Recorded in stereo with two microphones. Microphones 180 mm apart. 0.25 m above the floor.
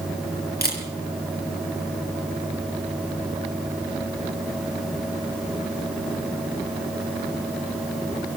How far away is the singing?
No singing in this recording.